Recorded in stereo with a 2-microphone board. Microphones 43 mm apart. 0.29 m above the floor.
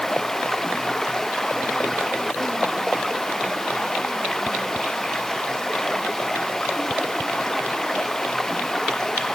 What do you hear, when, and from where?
0.0 s running water: 10° left (ahead or behind)